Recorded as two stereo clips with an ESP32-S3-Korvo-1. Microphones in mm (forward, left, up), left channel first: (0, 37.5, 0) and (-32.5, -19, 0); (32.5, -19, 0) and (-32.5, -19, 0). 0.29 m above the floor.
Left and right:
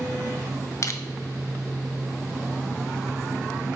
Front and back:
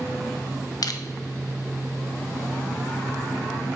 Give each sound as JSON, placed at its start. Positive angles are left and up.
{"t": 0.8, "sound": "crushing", "azimuth_deg": 20, "distance_m": 0.6}